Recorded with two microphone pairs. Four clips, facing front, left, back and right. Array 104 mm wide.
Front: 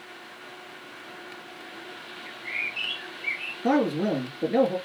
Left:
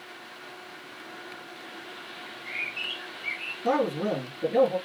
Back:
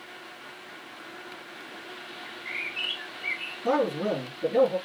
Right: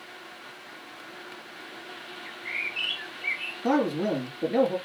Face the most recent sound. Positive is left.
turn(degrees=-30)